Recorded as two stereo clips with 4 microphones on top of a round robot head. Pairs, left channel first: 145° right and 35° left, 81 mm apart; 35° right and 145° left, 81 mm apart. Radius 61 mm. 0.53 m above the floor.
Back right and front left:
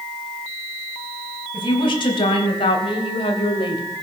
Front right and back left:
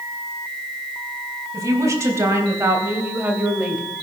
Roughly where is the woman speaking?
Behind.